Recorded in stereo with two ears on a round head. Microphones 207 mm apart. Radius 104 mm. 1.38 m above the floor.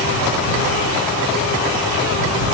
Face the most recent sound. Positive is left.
No sound to turn to.